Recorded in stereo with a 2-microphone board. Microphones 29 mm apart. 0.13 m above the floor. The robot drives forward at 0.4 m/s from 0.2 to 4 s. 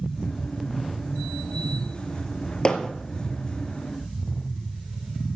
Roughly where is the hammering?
Left.